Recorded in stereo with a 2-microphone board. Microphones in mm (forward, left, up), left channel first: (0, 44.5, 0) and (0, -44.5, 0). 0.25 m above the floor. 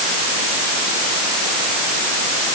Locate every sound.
Only background noise.